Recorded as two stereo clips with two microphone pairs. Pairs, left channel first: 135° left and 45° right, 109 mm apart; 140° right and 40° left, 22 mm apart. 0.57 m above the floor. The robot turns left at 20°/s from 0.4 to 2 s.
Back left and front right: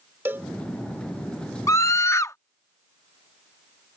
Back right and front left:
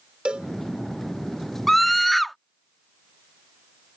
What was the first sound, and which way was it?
A cowbell, 20° left.